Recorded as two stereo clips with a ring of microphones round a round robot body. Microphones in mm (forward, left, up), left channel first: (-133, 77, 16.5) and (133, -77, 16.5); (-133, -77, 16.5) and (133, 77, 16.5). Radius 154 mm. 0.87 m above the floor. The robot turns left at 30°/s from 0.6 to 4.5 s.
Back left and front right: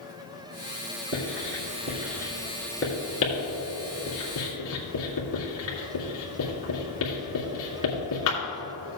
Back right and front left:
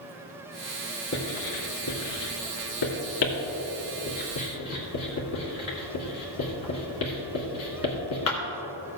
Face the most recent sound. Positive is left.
turn(degrees=180)